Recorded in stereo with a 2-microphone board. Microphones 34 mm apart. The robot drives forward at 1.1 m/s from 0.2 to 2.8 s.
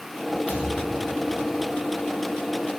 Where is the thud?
55° left (ahead or behind), 2.5 m; by 1.8 s 35° left (ahead or behind), 3.5 m.